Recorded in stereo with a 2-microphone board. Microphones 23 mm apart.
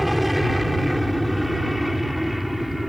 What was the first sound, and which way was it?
An aircraft, 5° right (ahead or behind).